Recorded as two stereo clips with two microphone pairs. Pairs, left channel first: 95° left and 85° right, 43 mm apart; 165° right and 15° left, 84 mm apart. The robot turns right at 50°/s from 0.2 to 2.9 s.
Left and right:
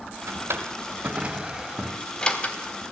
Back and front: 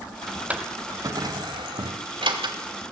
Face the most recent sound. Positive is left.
turn(degrees=60)